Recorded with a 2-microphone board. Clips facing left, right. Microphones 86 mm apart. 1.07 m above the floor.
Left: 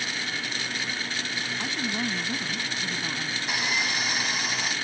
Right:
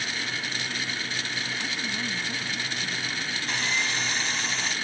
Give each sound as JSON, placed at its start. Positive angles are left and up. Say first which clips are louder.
{"t": 1.6, "sound": "a woman speaking", "louder": "left 2 dB", "side_deg": 30}
{"t": 3.5, "sound": "sawing", "louder": "even", "side_deg": 10}